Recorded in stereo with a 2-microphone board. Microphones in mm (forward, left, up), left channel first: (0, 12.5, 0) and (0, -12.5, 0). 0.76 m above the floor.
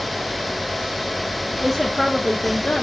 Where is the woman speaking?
5° right (ahead or behind), 1.3 m; by 2.8 s 35° left (ahead or behind), 1.3 m.